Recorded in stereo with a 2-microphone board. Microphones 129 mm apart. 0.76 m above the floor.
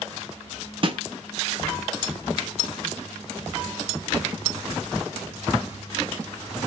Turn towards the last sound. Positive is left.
turn(degrees=-40)  # may be behind; listen again after turning